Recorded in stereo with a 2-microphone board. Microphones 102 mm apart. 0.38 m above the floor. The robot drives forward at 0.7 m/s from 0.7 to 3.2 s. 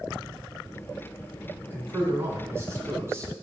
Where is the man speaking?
20° right (ahead or behind), 3.5 m; by 3.3 s 30° right (ahead or behind), 2.5 m.